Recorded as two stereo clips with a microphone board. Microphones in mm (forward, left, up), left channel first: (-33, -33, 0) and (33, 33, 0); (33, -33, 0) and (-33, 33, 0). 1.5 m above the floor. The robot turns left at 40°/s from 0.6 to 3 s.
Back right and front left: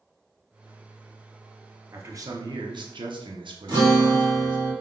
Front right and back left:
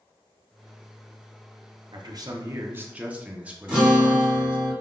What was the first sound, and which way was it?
A man speaking, 105° left.